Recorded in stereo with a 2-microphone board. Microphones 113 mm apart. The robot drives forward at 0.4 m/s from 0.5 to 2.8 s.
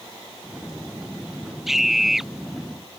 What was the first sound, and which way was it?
A scream, 5° right (ahead or behind).